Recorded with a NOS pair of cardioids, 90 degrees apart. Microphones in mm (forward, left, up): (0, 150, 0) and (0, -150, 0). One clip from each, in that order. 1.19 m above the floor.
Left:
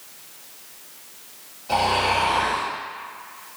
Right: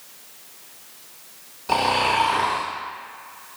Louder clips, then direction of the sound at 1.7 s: Even; 60° right.